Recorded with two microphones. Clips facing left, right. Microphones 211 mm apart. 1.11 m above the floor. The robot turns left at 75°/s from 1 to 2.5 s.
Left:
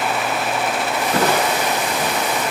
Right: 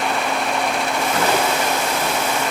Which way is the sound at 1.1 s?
145° left.